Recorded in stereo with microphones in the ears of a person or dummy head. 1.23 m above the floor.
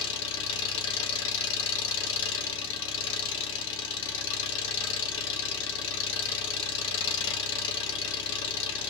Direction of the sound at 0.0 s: 70° left (ahead or behind).